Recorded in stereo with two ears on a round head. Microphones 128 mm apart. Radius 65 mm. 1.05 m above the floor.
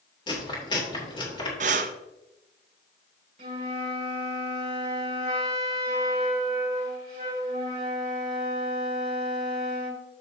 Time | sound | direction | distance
0.3 | chewing | 35° left (ahead or behind) | 3 m
1.6 | breathing | 50° right (ahead or behind) | 0.6 m
3.4 | a flute | 40° right (ahead or behind) | 2.5 m